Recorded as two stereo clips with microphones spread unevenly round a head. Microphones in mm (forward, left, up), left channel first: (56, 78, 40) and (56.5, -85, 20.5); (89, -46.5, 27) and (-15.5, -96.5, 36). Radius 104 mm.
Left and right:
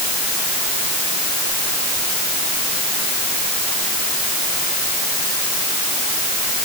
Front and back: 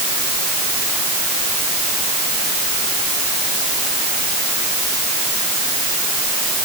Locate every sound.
Only background noise.